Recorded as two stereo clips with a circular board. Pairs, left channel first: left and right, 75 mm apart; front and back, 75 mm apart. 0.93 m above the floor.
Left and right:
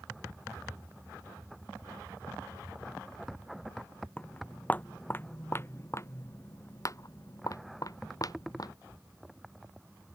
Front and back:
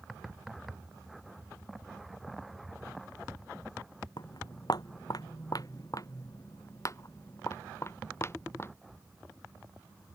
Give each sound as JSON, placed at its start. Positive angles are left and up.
{"t": 4.2, "sound": "footsteps", "azimuth_deg": 15}